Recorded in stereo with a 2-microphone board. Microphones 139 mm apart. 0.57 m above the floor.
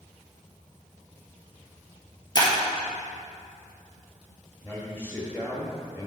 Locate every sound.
2.4 s breaking glass: 30° left (ahead or behind), 1.9 m
4.6 s a man speaking: 10° left (ahead or behind), 1.3 m